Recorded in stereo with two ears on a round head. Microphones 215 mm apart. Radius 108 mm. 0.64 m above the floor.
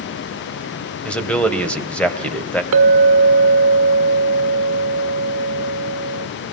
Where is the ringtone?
No ringtone in this recording.